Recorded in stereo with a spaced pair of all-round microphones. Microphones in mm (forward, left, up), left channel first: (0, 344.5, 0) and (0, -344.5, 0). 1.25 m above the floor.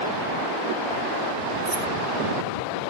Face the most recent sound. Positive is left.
turn(degrees=-25)  # may be behind; listen again after turning